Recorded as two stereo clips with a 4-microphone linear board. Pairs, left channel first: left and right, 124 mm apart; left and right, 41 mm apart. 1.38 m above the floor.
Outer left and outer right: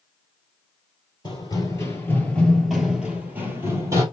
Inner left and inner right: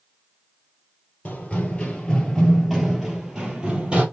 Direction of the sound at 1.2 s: 35° left (ahead or behind).